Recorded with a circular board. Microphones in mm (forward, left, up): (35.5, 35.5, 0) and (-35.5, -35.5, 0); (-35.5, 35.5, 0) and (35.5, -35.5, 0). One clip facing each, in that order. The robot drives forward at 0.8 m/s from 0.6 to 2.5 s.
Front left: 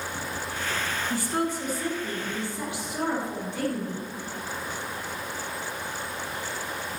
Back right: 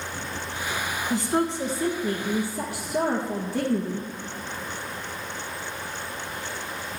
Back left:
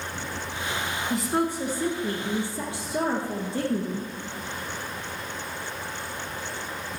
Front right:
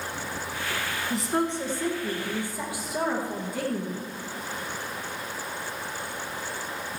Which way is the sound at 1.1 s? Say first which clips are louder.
Back right 5 dB, back left 1 dB; 130° right.